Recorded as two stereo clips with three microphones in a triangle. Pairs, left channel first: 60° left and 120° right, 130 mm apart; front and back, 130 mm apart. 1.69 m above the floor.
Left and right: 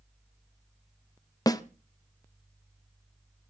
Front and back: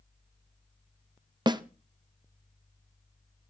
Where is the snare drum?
120° left, 1.1 m.